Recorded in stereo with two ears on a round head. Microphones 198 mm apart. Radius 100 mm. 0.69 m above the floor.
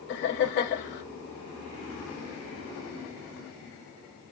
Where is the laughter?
50° left (ahead or behind), 2 m.